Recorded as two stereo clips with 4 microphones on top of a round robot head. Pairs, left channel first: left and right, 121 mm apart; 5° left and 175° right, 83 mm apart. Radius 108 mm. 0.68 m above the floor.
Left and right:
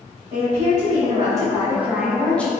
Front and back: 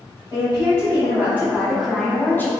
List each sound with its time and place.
0.3 s a woman speaking: 135° right, 1.4 m; by 2.5 s 25° left, 0.9 m